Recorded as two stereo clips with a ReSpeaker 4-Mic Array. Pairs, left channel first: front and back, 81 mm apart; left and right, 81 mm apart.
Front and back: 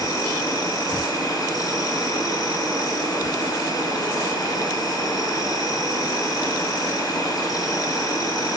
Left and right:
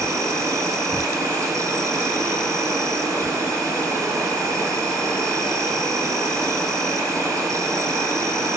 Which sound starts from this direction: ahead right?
An insect, at 0.0 s.